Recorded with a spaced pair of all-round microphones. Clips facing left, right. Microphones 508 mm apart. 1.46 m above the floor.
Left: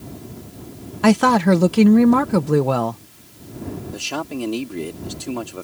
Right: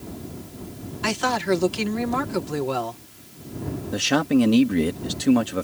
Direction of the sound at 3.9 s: 80° right.